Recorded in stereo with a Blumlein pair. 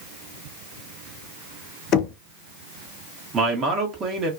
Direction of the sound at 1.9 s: 30° left.